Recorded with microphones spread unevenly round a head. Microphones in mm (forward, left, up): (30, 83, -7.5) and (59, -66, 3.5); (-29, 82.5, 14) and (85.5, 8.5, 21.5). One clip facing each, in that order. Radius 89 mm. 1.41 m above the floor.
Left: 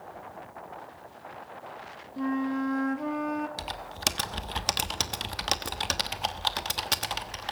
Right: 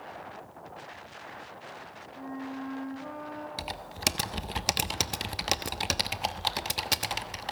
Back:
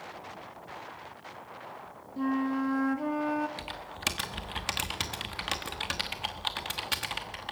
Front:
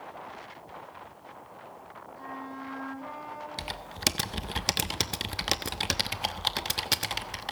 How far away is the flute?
About 1.1 m.